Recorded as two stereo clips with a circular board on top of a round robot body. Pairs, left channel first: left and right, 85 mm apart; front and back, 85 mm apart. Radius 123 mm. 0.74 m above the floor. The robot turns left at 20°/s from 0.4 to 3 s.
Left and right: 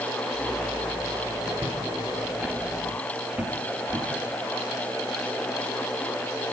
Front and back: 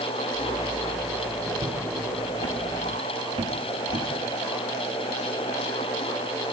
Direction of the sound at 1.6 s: 150° right.